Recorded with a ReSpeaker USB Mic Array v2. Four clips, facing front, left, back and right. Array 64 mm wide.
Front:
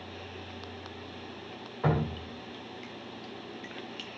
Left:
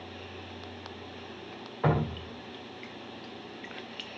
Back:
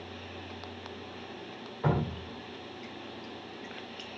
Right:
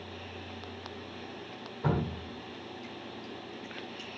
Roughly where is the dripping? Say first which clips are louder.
Left 3 dB, front 1 dB; left.